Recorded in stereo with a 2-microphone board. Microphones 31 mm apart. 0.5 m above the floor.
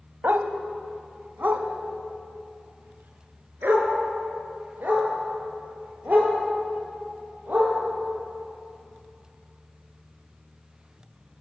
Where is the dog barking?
80° right, 1.2 m; by 7.7 s 65° right (ahead or behind), 6.5 m.